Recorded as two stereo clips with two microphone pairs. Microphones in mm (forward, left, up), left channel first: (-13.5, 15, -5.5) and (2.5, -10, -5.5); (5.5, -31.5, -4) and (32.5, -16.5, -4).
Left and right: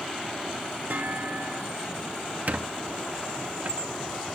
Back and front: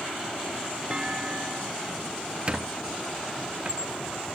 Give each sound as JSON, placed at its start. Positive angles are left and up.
{"t": 0.9, "sound": "a clunk", "azimuth_deg": -35}
{"t": 2.5, "sound": "a squeak", "azimuth_deg": -25}